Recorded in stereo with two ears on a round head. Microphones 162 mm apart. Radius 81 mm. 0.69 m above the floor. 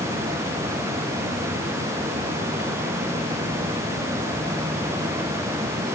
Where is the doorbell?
No doorbell in this recording.